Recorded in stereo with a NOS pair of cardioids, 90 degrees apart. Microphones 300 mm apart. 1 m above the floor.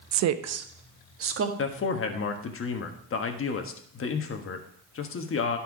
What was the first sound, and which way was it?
A woman speaking, 65° right.